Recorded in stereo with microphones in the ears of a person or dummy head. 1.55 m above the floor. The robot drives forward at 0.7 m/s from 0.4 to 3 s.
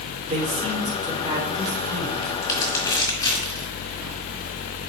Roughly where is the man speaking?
Right.